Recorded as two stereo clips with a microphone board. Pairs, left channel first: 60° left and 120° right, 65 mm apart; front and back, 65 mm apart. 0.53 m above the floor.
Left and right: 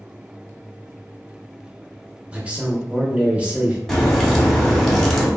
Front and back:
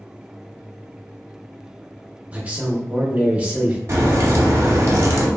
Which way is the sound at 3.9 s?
145° left.